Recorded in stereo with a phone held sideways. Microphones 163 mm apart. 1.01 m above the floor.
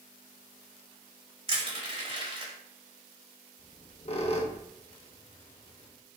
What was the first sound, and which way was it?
Crushing, 40° right (ahead or behind).